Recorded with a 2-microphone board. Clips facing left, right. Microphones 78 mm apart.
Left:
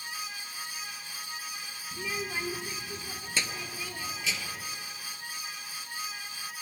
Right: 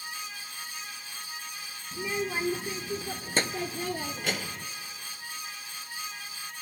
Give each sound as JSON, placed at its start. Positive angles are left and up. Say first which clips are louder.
{"t": 1.9, "sound": "a child speaking", "louder": "right 4 dB", "side_deg": -20, "distance_m": 1.3}